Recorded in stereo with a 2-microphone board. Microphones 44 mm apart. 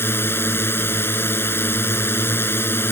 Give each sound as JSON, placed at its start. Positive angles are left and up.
{"t": 0.0, "sound": "a drone", "side_deg": 60}